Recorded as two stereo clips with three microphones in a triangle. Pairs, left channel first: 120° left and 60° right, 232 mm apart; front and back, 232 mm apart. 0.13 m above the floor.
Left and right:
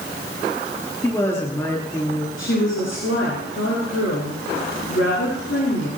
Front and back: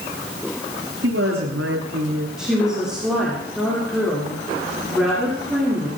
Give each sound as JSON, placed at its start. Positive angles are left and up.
{"t": 1.0, "sound": "a woman speaking", "azimuth_deg": -165, "distance_m": 7.5}
{"t": 2.4, "sound": "a woman speaking", "azimuth_deg": 95, "distance_m": 7.5}